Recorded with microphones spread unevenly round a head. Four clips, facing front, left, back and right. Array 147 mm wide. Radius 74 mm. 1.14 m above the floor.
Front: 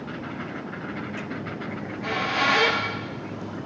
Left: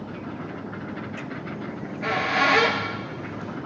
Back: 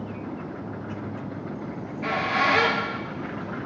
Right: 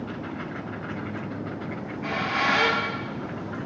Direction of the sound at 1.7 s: 95° left.